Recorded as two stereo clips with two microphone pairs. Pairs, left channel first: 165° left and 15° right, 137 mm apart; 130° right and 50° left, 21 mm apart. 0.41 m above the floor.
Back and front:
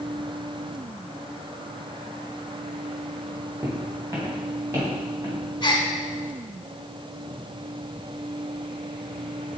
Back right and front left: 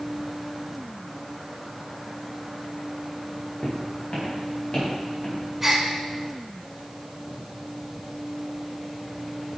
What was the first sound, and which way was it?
Footsteps, 85° right.